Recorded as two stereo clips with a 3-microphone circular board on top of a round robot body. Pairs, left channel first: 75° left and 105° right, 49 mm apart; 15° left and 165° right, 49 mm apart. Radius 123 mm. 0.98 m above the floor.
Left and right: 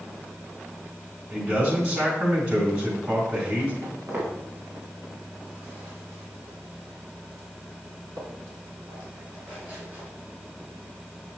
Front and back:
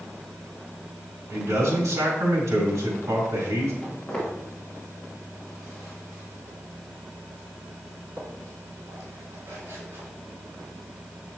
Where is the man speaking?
150° right, 3 m.